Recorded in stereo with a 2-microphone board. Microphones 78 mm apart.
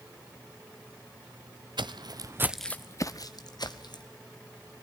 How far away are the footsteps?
About 1.0 m.